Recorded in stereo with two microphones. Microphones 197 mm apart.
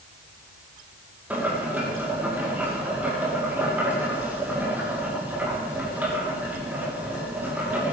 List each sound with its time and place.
1.3 s boiling: 10° right (ahead or behind), 7.5 m